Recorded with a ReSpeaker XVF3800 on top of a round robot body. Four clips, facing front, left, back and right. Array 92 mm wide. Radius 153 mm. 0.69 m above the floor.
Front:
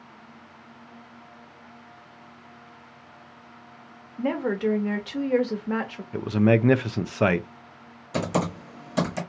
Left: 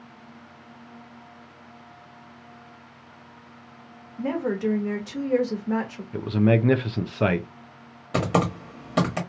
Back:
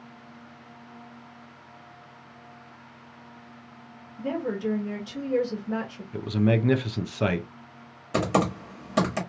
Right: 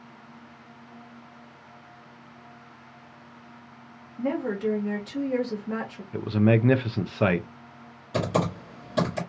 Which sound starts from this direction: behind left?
Typing on a keyboard, at 8.1 s.